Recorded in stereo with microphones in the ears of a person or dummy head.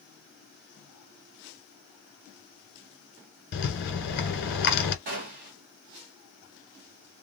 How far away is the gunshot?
About 0.7 m.